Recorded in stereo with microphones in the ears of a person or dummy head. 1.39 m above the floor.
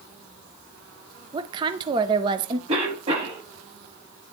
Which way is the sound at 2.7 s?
35° right (ahead or behind).